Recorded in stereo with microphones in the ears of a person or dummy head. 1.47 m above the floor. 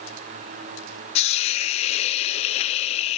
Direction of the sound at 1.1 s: 40° left (ahead or behind).